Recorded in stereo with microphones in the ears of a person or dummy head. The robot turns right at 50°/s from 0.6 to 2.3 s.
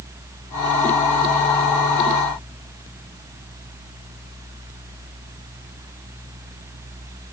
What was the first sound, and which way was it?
Only background noise.